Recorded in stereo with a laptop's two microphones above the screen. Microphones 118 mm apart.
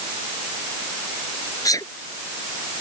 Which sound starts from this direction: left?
A sneeze, at 1.6 s.